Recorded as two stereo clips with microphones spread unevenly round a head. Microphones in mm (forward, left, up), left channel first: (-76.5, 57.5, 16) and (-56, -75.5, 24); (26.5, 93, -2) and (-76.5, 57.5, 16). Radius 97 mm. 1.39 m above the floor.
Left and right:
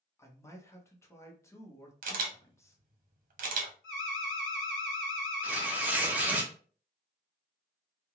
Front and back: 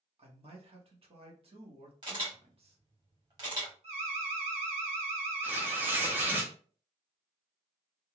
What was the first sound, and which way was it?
A man speaking, 165° left.